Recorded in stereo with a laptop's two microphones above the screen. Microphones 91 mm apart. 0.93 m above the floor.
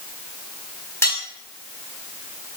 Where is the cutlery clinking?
30° left (ahead or behind), 3.5 m.